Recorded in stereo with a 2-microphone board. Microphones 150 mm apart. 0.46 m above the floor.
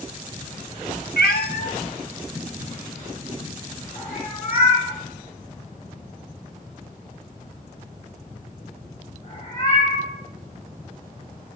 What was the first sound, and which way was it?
A cat meowing, 85° left.